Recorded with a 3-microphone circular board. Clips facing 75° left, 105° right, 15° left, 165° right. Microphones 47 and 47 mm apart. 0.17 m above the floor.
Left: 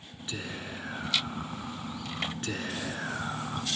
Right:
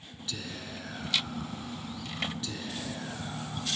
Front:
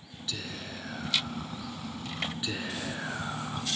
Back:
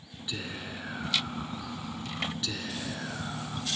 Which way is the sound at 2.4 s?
85° left.